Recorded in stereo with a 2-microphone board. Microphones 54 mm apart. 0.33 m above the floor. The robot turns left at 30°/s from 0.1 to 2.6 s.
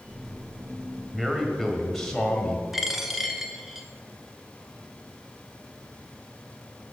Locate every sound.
1.1 s a man speaking: 160° right, 1.4 m; by 2.6 s 155° left, 1.4 m
2.7 s a dropped coin: 5° right (ahead or behind), 0.8 m